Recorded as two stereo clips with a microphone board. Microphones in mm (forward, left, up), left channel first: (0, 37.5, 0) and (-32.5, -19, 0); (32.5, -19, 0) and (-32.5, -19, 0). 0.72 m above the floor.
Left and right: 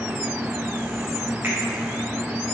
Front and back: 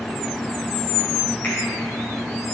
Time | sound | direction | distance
1.4 | a finger snap | 60° right | 3 m